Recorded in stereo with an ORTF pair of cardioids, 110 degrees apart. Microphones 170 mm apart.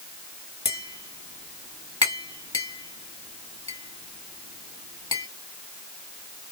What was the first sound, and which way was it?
Tapping, 25° left.